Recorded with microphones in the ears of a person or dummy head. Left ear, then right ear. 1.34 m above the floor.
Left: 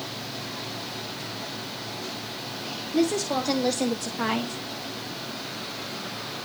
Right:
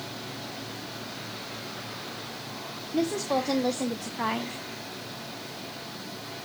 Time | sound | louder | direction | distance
2.9 | a woman speaking | left 2 dB | 10° right (ahead or behind) | 1.5 m